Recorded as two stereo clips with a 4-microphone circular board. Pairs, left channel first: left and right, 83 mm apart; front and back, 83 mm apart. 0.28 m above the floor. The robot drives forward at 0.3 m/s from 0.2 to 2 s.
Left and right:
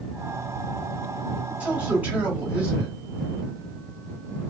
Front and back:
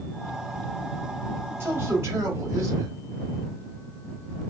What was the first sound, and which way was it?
A man speaking, 145° right.